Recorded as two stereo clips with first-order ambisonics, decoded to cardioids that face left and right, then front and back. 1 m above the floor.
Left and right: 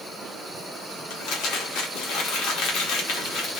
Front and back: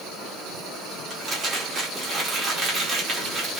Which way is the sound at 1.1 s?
105° left.